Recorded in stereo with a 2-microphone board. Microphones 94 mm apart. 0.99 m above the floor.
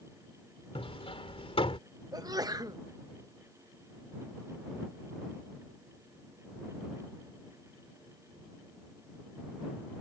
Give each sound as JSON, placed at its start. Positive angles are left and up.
{"t": 0.8, "sound": "hammering", "side_deg": 85}
{"t": 2.1, "sound": "a sneeze", "side_deg": -40}